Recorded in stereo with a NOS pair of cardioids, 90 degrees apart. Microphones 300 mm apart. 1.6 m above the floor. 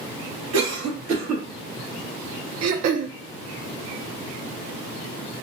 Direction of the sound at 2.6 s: 60° right.